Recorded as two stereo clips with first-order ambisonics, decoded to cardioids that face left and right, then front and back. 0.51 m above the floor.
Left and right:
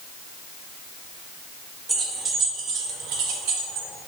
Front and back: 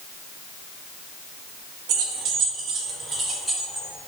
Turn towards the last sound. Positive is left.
turn(degrees=-90)